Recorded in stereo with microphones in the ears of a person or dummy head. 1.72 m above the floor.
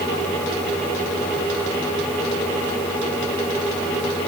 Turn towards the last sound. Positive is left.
No sound to turn to.